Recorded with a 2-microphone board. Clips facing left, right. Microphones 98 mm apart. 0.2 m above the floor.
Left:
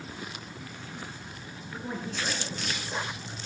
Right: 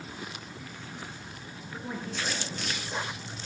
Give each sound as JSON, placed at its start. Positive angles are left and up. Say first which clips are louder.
{"t": 1.7, "sound": "a man speaking", "louder": "left 1 dB", "side_deg": 15, "distance_m": 2.5}